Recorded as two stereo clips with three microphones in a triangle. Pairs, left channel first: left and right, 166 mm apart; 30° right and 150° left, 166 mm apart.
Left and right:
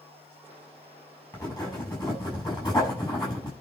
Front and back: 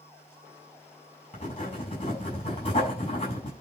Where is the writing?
25° left, 7 m.